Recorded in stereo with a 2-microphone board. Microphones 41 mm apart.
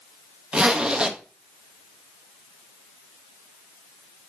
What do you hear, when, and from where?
0.5 s a zipper: 20° right (ahead or behind), 0.9 m